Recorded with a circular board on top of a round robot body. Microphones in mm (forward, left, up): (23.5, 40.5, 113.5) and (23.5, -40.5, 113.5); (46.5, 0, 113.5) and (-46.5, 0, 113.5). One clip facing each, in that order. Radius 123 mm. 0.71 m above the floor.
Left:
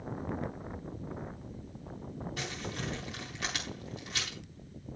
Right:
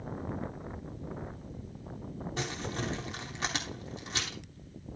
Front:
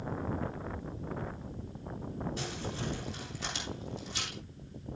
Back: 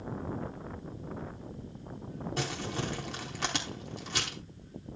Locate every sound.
2.4 s crumpling: 150° right, 3.5 m